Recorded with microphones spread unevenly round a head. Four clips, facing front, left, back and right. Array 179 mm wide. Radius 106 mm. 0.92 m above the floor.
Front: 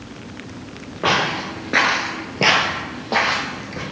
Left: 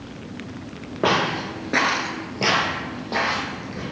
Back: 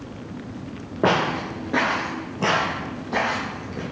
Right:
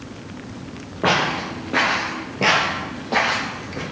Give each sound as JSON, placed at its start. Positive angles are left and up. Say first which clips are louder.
{"t": 1.0, "sound": "footsteps", "louder": "right 1 dB, even", "azimuth_deg": 150, "distance_m": 1.3}